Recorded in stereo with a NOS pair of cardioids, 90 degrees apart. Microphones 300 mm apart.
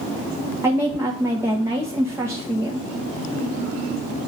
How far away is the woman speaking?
About 1.1 m.